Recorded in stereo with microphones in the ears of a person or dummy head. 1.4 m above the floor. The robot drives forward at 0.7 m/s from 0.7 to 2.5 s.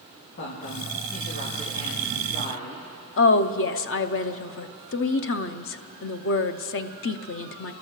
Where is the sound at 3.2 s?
60° left (ahead or behind), 0.6 m.